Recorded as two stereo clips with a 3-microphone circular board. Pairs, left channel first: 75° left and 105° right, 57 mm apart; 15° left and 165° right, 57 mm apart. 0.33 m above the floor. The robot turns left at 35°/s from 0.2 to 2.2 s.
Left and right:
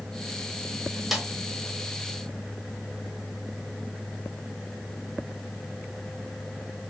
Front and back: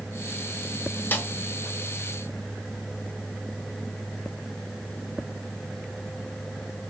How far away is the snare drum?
About 1.2 m.